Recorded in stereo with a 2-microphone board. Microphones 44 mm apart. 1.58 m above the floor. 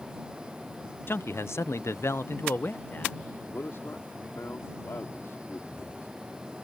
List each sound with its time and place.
1.1 s a man speaking: 55° left (ahead or behind); by 3.3 s 40° left (ahead or behind)
3.5 s a man speaking: 65° left (ahead or behind)